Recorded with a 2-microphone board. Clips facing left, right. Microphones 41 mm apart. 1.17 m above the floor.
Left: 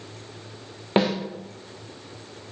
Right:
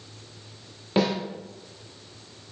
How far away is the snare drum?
About 0.8 m.